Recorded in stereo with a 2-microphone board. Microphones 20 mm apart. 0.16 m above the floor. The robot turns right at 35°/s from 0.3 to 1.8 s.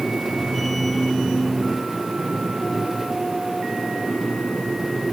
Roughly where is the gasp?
I don't hear a gasp.